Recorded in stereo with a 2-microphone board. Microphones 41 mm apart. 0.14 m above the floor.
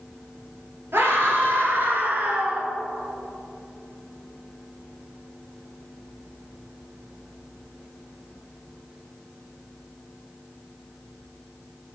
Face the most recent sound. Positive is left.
turn(degrees=-25)  # may be behind; listen again after turning